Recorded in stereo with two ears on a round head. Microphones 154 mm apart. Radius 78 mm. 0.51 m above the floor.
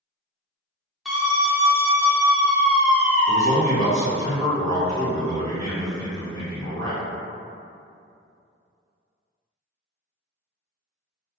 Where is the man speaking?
20° left (ahead or behind), 1.1 m.